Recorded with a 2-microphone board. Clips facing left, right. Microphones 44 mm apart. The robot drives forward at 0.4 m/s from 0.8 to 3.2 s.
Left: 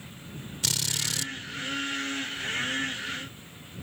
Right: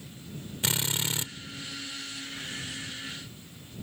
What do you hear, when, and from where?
0.6 s a drill: 30° right (ahead or behind)